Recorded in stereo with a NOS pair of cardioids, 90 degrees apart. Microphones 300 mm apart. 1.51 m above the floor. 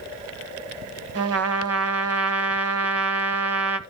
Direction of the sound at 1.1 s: 50° right.